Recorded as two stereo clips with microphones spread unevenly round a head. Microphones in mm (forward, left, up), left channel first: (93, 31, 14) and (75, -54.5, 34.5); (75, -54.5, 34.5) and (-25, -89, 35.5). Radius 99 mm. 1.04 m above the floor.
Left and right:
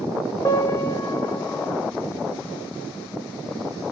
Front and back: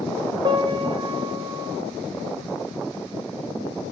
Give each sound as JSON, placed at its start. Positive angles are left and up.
{"t": 0.5, "sound": "a piano", "azimuth_deg": 140, "distance_m": 1.1}